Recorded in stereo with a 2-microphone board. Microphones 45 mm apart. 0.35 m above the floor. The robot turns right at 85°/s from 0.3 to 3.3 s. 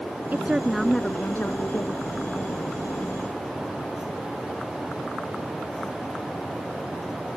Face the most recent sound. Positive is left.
turn(degrees=-145)